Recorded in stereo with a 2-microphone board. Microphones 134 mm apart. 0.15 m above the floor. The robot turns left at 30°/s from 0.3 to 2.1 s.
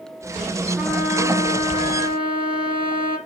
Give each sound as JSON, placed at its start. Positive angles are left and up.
{"t": 0.8, "sound": "a trumpet", "azimuth_deg": -10, "distance_m": 3.0}